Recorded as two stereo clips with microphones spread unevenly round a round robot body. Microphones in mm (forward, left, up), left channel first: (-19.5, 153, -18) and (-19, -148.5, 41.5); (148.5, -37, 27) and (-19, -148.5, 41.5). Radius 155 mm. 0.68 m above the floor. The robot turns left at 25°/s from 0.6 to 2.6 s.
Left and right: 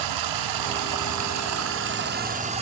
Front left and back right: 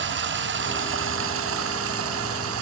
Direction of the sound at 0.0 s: 115° right.